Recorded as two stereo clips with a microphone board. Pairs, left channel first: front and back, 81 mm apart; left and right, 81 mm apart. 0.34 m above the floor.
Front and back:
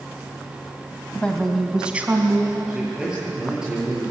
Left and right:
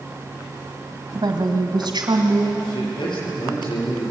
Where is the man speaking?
100° left, 8.5 m.